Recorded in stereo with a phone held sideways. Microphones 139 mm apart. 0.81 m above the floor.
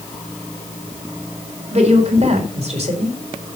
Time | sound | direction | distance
1.7 | a woman speaking | 50° right (ahead or behind) | 4 m